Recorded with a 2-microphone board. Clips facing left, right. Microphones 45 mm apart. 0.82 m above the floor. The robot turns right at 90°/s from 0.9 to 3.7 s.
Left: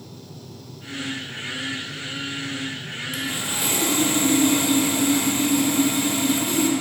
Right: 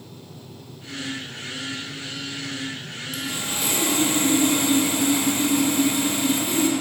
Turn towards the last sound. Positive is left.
turn(degrees=-175)